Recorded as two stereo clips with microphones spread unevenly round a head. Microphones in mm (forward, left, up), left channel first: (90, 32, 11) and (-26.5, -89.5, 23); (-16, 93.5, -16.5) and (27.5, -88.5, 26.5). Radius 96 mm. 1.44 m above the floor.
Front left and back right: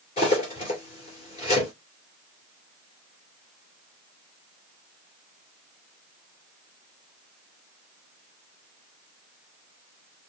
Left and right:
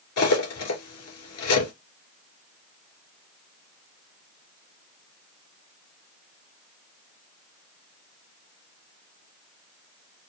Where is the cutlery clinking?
110° left, 2.5 m.